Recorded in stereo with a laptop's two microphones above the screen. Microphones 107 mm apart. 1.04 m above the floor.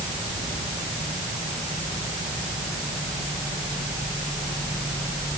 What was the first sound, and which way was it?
Only background noise.